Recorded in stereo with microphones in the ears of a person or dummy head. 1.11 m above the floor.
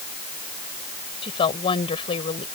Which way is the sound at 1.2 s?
30° left (ahead or behind).